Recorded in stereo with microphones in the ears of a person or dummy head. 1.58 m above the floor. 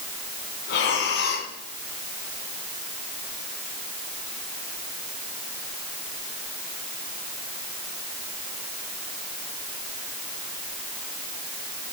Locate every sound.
0.7 s breathing: 55° left (ahead or behind), 2.5 m